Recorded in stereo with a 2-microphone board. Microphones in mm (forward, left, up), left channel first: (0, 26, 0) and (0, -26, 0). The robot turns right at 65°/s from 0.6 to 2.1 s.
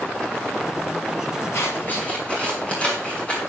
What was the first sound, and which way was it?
Scissors, 60° left (ahead or behind).